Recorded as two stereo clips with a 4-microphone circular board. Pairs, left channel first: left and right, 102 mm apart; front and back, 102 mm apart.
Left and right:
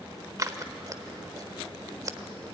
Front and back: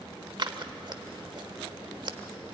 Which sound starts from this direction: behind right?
Scissors, at 0.4 s.